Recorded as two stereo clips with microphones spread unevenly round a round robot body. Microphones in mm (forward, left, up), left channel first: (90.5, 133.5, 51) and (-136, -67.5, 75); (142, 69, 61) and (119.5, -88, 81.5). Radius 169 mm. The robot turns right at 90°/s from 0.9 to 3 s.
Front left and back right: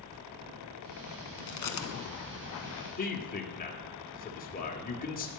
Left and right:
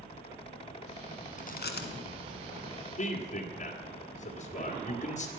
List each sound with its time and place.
1.4 s chewing: 40° left, 1.5 m; by 2.8 s 165° left, 1.5 m
3.0 s a man speaking: 95° left, 1.9 m